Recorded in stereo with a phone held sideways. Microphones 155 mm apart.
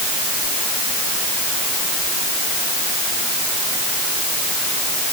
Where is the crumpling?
No crumpling in this recording.